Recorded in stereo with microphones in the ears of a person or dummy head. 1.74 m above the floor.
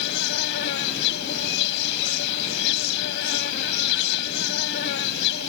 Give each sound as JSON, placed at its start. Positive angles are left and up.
{"t": 0.0, "sound": "an insect", "side_deg": 75}